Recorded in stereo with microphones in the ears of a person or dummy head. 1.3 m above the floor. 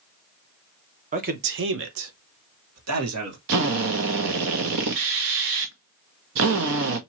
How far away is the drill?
About 0.7 m.